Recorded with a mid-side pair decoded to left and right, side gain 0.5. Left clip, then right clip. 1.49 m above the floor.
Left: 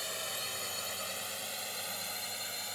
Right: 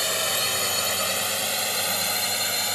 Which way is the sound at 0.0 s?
70° right.